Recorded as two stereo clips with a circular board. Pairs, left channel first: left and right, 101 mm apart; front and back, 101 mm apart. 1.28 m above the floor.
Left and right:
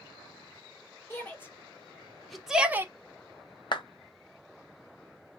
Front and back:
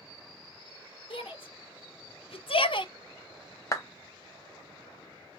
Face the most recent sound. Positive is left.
turn(degrees=55)